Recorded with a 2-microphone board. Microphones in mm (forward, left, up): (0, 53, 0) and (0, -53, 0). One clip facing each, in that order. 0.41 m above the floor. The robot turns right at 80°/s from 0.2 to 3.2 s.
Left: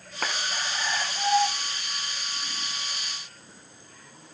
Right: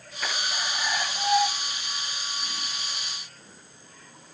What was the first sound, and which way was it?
A clap, 70° left (ahead or behind).